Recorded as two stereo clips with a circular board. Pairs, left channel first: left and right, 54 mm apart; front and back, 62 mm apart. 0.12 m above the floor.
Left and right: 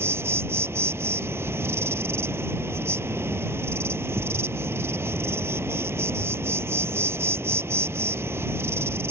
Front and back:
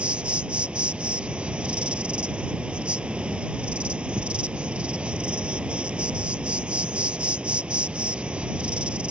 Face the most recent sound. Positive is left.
turn(degrees=-115)